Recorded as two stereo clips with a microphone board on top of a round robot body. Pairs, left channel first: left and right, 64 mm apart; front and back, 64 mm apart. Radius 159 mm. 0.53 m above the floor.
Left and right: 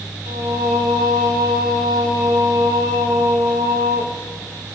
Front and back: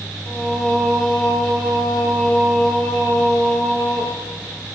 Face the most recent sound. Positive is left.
turn(degrees=-85)